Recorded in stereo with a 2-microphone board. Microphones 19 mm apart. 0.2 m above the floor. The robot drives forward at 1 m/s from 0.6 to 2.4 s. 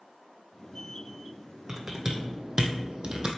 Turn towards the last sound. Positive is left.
turn(degrees=-40)  # may be behind; listen again after turning